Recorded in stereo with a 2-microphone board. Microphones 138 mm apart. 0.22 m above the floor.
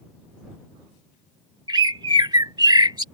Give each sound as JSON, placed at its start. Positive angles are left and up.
{"t": 1.7, "sound": "a bird", "side_deg": -30}